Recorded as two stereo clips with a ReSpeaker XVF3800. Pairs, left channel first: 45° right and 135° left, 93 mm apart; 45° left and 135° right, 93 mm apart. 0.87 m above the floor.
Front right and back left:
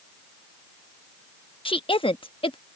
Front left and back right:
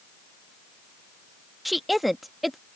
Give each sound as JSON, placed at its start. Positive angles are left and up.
{"t": 1.6, "sound": "a woman speaking", "azimuth_deg": -45}